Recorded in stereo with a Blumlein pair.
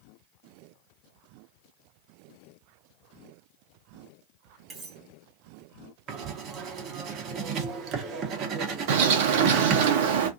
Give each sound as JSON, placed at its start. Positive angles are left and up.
{"t": 4.7, "sound": "cutlery clinking", "azimuth_deg": -10, "distance_m": 1.6}
{"t": 6.1, "sound": "writing", "azimuth_deg": -30, "distance_m": 0.8}
{"t": 8.9, "sound": "a bird", "azimuth_deg": -50, "distance_m": 0.7}